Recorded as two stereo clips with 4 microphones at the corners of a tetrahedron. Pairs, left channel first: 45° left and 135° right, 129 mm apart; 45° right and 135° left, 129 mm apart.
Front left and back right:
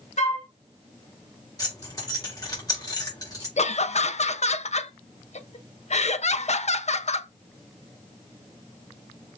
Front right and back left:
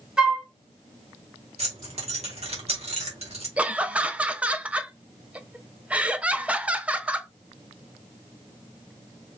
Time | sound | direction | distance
0.2 | a flute | 50° left | 1.7 m
1.6 | keys jangling | 105° left | 2 m
3.6 | laughter | 55° left | 0.5 m